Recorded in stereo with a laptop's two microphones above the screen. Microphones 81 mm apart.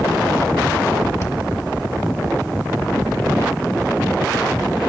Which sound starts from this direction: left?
Breathing, at 1.2 s.